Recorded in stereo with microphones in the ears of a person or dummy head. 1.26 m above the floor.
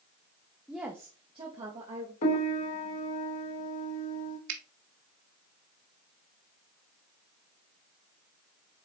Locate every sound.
0.7 s a woman speaking: centre (ahead or behind), 0.8 m; by 2.1 s 40° right (ahead or behind), 1.8 m
2.2 s a piano: 50° left (ahead or behind), 1.1 m
4.5 s a finger snap: 65° right (ahead or behind), 1.3 m